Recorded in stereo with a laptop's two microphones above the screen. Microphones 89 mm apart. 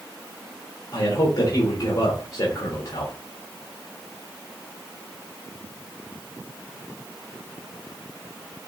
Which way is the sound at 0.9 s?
65° left (ahead or behind).